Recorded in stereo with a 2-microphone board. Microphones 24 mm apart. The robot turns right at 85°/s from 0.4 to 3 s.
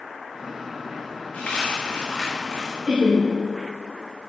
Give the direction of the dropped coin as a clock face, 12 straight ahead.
9 o'clock.